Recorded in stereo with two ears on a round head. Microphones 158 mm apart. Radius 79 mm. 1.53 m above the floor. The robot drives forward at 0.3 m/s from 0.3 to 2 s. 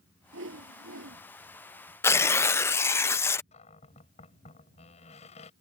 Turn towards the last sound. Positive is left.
turn(degrees=35)  # may be behind; listen again after turning